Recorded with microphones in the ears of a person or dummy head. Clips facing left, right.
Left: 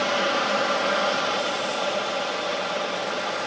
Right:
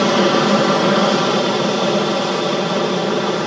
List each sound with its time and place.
0.0 s an aircraft: 60° right (ahead or behind)